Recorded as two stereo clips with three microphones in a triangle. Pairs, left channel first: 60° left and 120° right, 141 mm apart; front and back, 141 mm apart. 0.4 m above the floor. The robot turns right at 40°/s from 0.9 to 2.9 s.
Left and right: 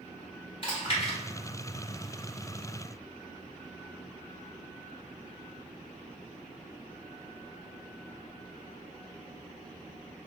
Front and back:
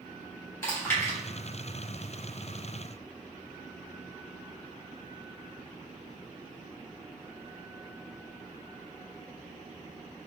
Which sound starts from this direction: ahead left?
Chewing, at 0.6 s.